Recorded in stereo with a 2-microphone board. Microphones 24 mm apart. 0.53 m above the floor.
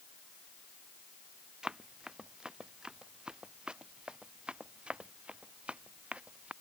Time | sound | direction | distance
1.6 | running footsteps | 35° right (ahead or behind) | ?